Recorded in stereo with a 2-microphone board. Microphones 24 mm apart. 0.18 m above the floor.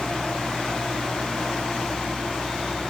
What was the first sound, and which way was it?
Only background noise.